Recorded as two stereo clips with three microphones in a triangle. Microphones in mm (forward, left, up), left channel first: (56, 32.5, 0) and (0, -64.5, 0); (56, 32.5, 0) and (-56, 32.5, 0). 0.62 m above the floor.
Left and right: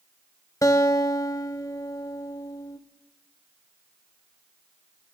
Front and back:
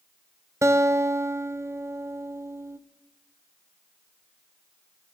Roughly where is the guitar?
Behind left.